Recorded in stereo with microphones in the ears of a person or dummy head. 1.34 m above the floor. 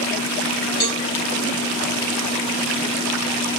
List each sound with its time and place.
0.8 s a cowbell: 30° left (ahead or behind), 1.0 m